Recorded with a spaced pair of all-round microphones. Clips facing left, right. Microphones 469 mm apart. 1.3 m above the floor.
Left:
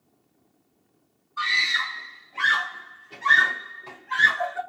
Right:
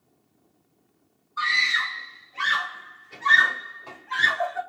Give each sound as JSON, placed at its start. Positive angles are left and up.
{"t": 1.4, "sound": "a scream", "side_deg": 55, "distance_m": 0.9}